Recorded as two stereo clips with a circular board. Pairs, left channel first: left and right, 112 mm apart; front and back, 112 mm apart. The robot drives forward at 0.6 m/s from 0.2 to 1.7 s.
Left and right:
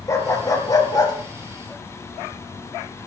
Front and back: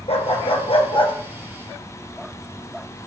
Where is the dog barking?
30° left, 2 m; by 1.1 s 40° left, 1.8 m.